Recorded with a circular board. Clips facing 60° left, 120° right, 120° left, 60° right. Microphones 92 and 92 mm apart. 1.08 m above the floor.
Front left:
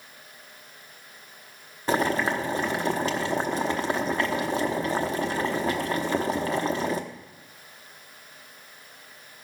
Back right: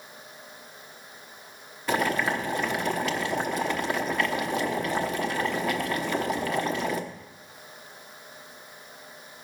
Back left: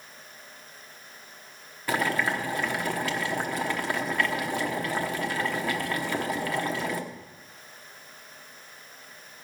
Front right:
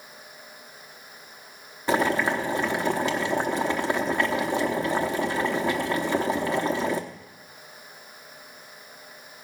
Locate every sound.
1.9 s boiling: 5° left, 0.9 m